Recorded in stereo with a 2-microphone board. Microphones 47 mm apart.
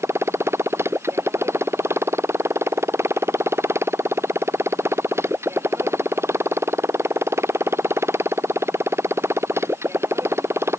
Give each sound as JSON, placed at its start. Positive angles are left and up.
{"t": 0.0, "sound": "a motorcycle", "side_deg": -60}